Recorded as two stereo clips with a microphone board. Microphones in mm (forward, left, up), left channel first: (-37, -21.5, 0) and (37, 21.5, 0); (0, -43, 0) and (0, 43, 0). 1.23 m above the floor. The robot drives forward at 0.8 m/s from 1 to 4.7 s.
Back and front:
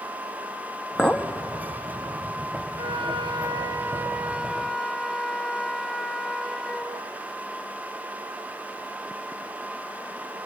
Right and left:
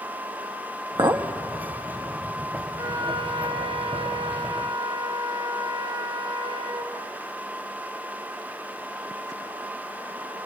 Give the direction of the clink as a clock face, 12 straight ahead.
8 o'clock.